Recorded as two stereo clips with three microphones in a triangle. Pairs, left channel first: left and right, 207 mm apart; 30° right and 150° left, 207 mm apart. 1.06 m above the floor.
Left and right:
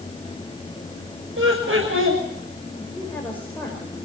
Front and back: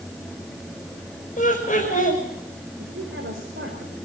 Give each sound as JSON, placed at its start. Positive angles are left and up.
{"t": 1.4, "sound": "laughter", "azimuth_deg": -80, "distance_m": 6.0}
{"t": 2.8, "sound": "a woman speaking", "azimuth_deg": 170, "distance_m": 4.5}